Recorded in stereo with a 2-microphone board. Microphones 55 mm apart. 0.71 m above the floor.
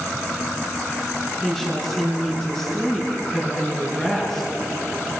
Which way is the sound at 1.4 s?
5° left (ahead or behind).